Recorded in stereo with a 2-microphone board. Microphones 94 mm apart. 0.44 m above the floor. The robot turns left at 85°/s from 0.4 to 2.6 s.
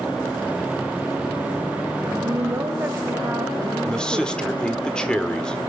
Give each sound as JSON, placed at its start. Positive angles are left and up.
{"t": 2.2, "sound": "a woman speaking", "azimuth_deg": -115, "distance_m": 1.8}
{"t": 3.8, "sound": "a man speaking", "side_deg": 10, "distance_m": 1.3}